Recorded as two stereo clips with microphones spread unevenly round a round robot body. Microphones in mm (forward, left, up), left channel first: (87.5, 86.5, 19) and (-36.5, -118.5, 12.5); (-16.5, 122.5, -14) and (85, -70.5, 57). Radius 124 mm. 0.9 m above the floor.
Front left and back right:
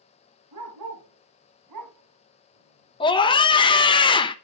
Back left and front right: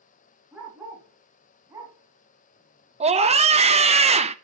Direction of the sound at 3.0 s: 5° left.